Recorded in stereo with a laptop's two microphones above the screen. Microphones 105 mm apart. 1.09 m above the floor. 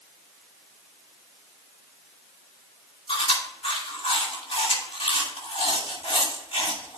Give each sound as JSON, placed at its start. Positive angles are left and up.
{"t": 3.1, "sound": "chewing", "side_deg": 60, "distance_m": 2.0}